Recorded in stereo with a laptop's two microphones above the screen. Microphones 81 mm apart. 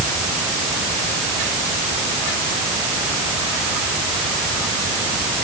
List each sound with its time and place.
Only background noise.